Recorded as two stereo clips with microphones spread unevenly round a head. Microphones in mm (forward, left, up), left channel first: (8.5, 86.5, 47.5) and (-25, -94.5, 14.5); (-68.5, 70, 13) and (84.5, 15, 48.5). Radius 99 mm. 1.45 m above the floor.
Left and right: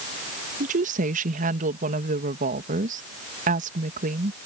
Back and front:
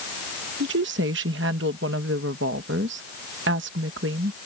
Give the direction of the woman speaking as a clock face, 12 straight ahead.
2 o'clock.